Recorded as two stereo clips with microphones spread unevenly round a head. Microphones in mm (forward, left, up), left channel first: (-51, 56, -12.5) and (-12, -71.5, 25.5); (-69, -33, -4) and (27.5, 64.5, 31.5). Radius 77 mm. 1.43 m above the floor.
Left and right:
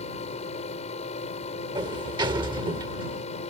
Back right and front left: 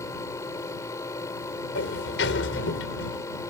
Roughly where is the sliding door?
Behind right.